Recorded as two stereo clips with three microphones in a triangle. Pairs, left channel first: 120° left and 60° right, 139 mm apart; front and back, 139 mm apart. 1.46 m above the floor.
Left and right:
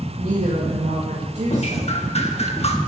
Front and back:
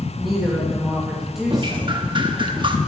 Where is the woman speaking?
90° right, 2.5 m.